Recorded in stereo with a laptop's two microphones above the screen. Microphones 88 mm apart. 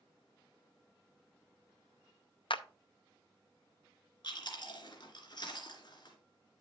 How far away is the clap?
About 0.6 m.